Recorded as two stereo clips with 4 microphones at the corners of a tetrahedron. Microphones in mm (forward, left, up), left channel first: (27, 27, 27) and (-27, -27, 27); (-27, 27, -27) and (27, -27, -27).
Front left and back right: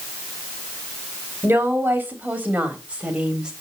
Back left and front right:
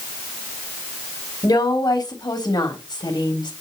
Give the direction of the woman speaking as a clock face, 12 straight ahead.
7 o'clock.